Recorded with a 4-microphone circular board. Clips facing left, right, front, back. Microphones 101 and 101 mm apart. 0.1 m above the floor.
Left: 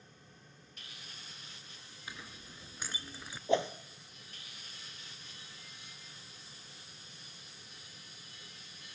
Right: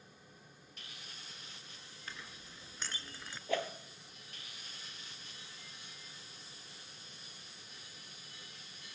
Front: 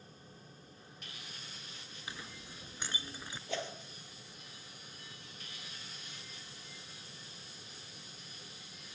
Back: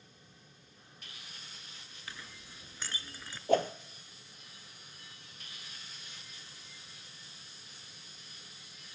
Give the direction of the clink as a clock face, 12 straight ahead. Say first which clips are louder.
Left 2 dB, front 2 dB; 11 o'clock.